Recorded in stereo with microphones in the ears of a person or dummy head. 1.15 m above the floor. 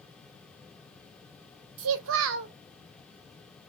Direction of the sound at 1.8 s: 70° right (ahead or behind).